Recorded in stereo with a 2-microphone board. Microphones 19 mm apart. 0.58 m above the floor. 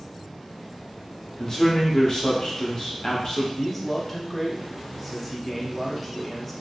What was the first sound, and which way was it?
A man speaking, 30° left (ahead or behind).